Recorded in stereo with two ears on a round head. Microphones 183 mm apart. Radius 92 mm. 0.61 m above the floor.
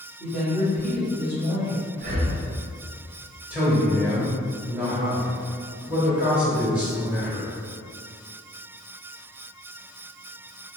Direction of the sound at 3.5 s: 5° right (ahead or behind).